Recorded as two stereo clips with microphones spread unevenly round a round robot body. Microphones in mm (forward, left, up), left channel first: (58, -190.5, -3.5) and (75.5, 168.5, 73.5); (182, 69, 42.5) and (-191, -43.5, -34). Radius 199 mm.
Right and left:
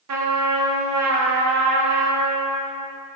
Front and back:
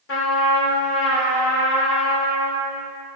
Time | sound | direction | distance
0.1 | a trumpet | 65° left | 1.1 m